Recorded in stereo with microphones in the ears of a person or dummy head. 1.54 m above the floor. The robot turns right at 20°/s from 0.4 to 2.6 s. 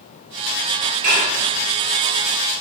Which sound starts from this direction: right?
Dishes clattering, at 1.0 s.